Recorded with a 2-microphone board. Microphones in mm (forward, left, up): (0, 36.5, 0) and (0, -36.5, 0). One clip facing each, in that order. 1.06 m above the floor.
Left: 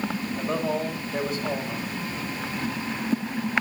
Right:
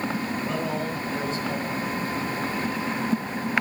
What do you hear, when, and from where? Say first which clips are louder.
0.4 s a man speaking: left 1 dB; 45° left (ahead or behind), 3.5 m